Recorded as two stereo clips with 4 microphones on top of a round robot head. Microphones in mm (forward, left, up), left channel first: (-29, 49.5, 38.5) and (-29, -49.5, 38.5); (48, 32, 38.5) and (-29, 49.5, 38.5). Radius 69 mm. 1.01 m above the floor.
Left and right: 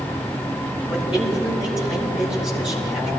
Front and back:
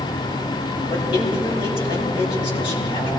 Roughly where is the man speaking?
Ahead.